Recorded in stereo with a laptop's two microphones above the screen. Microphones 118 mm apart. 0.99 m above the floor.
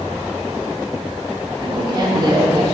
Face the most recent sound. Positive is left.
turn(degrees=-40)  # may be behind; listen again after turning